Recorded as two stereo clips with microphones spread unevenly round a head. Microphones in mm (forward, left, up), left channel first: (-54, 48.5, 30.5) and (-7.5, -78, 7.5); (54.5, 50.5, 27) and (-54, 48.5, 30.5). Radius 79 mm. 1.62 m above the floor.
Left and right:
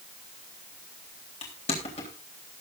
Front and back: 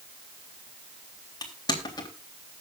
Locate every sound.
1.4 s crushing: 55° left, 3.5 m